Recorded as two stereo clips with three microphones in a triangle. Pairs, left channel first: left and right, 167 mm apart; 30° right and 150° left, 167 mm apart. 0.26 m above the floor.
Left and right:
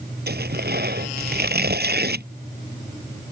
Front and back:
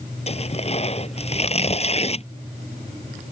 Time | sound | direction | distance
0.3 | tearing paper | 80° right | ?